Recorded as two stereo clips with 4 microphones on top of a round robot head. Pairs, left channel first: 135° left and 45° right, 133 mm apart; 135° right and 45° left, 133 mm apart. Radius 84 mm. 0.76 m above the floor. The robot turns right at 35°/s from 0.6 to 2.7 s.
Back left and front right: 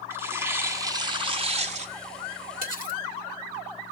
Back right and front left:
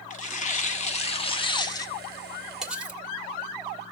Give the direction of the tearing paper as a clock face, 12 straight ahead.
4 o'clock.